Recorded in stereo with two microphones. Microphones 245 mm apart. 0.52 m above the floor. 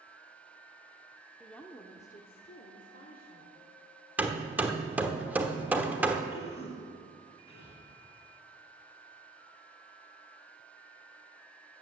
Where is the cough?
25° left (ahead or behind), 5.5 m.